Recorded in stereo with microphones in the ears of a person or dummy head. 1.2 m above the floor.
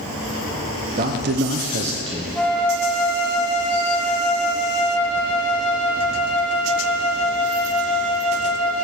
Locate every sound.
1.0 s a man speaking: 40° right (ahead or behind), 0.9 m; by 2.2 s 20° right (ahead or behind), 1.1 m
2.4 s a flute: 10° left (ahead or behind), 3 m